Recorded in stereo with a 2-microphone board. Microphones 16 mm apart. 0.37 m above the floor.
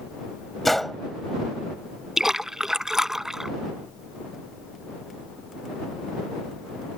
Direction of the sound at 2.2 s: 25° right (ahead or behind).